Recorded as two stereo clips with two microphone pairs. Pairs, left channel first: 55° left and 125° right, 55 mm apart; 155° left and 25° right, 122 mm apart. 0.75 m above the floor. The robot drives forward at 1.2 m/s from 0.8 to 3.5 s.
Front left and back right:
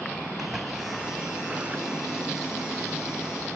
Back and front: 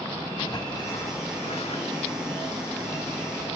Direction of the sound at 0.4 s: 155° left.